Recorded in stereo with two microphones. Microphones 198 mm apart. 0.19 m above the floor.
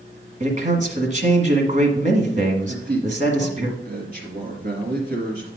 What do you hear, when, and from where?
0.4 s a man speaking: 40° right (ahead or behind), 1.5 m
2.7 s a man speaking: 50° right (ahead or behind), 3 m